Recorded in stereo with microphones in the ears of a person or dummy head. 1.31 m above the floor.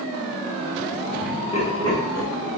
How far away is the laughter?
About 0.8 m.